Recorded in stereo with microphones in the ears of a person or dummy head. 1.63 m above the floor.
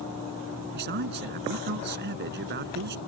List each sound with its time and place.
0.7 s a man speaking: 40° right (ahead or behind)